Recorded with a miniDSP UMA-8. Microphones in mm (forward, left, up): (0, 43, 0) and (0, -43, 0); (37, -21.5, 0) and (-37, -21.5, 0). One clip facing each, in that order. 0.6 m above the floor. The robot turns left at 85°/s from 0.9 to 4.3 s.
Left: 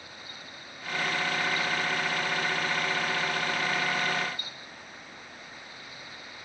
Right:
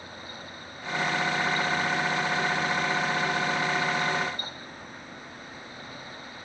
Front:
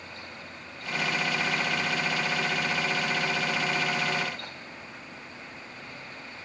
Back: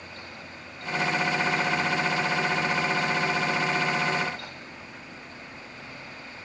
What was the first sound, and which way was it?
Only background noise.